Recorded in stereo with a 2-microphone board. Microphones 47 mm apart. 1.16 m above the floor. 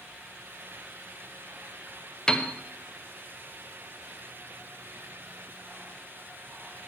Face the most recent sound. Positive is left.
turn(degrees=15)  # may be behind; listen again after turning